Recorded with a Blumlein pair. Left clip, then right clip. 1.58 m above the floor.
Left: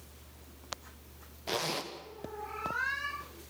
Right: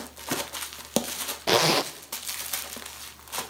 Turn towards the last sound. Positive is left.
turn(degrees=-55)